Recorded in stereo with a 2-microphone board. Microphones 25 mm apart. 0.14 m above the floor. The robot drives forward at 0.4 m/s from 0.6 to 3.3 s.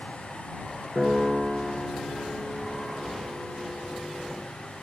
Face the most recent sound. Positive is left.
turn(degrees=-15)  # may be behind; listen again after turning